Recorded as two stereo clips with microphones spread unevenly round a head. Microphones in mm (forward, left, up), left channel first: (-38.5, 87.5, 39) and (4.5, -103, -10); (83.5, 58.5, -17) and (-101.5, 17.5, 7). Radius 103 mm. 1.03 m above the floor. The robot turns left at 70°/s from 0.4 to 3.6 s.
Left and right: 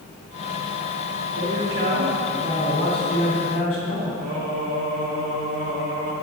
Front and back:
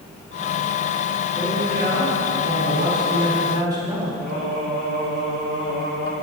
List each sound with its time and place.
1.4 s a man speaking: 80° right, 3 m; by 4.1 s 125° left, 3 m
4.2 s singing: 75° right, 3.5 m